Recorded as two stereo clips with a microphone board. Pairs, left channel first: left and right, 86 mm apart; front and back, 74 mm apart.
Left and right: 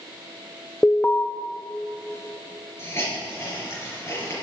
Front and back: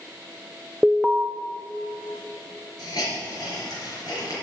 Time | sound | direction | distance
0.8 | an alarm | 105° left | 0.5 m
2.8 | a hiss | 30° left | 4 m